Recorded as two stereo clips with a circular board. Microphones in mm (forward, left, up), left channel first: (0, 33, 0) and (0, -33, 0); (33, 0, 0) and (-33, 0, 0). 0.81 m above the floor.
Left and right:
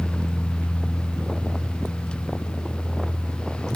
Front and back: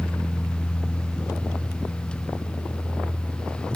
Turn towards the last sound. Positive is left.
No sound to turn to.